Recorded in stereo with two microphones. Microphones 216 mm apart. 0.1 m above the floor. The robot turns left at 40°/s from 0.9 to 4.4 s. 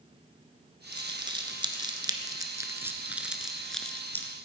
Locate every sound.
0.9 s crumpling: 20° right (ahead or behind), 1.0 m; by 4.3 s 10° left (ahead or behind), 1.0 m